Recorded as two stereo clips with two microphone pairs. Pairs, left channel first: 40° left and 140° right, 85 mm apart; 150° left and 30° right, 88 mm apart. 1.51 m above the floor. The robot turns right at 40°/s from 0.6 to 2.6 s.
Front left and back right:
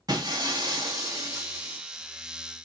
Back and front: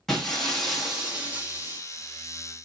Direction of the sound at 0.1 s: 125° right.